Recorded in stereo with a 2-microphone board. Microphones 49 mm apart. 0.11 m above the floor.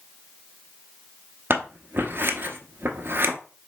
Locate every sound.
1.5 s scissors: 50° right (ahead or behind), 0.8 m